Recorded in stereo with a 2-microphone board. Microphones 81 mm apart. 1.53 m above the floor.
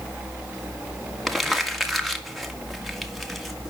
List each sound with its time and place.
1.3 s crumpling: centre (ahead or behind), 1.8 m